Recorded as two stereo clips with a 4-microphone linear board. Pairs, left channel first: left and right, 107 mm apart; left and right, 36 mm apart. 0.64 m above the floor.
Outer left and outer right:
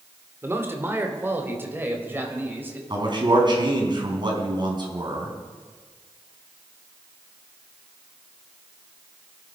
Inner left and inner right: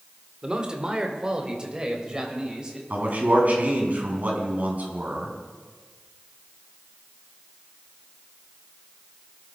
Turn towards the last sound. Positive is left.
turn(degrees=-45)  # may be behind; listen again after turning